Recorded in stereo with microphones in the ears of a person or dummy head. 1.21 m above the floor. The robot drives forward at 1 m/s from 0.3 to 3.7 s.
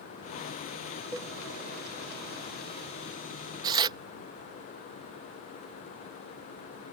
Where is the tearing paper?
20° right (ahead or behind).